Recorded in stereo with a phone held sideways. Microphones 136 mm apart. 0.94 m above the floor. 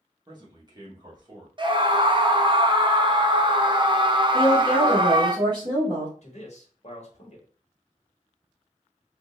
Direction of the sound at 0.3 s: 30° right (ahead or behind).